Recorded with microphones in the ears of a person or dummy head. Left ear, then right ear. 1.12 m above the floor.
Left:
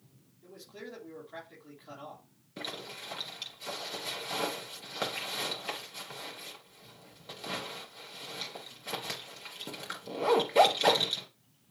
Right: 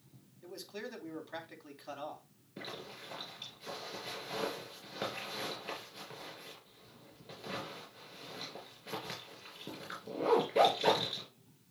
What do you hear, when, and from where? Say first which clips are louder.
0.4 s a man speaking: right 2 dB; 80° right, 4.5 m
2.6 s a zipper: left 5 dB; 20° left (ahead or behind), 2.5 m